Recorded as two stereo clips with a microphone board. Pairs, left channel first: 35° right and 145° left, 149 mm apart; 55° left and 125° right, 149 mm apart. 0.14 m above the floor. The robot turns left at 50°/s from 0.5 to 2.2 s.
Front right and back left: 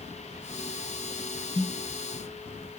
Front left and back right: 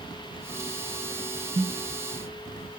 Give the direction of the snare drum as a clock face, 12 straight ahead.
3 o'clock.